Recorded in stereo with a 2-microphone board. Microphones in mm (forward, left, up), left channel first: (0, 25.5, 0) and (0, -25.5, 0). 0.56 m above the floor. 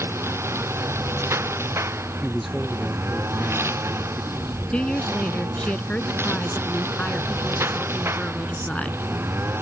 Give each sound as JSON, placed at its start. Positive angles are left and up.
{"t": 0.0, "sound": "a lawn mower", "side_deg": -65}
{"t": 2.2, "sound": "a man speaking", "side_deg": 0}
{"t": 4.7, "sound": "a woman speaking", "side_deg": 25}